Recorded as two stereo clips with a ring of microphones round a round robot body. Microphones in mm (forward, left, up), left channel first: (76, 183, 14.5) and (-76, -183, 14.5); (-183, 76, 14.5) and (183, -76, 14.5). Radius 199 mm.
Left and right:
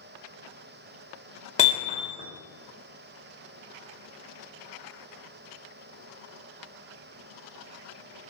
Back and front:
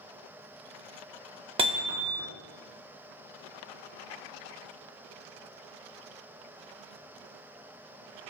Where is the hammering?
30° left, 0.6 m.